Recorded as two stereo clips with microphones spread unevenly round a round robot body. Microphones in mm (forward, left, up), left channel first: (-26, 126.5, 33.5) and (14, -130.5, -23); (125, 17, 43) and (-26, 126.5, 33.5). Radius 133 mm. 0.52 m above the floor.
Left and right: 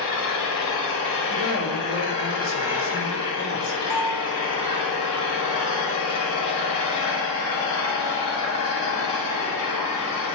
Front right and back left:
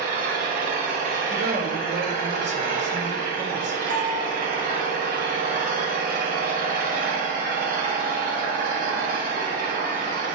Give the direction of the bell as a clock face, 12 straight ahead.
9 o'clock.